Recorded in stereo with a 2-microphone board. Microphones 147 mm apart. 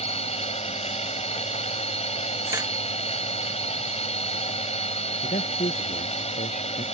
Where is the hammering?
20° right (ahead or behind).